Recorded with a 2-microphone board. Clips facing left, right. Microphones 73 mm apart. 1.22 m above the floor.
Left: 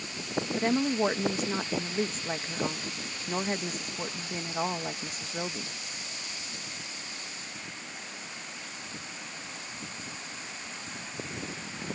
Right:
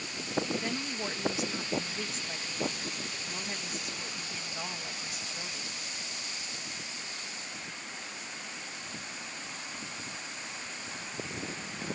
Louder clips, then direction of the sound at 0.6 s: Left 9 dB; 40° left (ahead or behind).